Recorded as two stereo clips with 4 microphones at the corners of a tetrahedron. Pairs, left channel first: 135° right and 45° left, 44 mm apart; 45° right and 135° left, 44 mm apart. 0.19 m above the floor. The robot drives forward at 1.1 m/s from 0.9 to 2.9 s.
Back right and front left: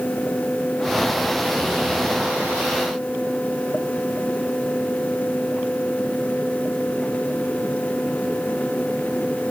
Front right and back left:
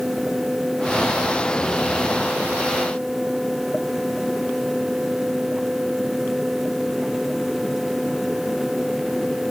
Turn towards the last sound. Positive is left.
No sound to turn to.